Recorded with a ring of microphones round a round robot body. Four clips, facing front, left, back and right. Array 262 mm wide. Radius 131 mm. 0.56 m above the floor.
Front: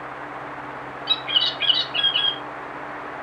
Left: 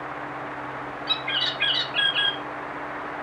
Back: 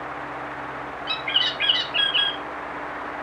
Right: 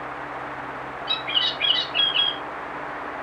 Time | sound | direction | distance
1.1 | a bird | 100° left | 1.1 m